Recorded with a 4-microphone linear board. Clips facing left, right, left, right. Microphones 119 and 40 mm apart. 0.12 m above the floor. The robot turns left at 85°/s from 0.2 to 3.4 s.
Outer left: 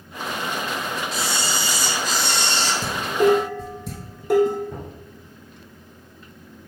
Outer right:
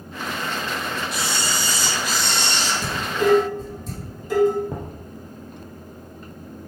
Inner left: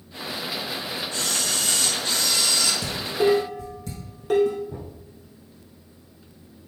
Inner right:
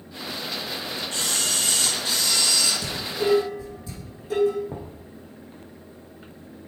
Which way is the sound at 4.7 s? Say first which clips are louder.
Outer right 2 dB, inner right 1 dB; 65° right (ahead or behind).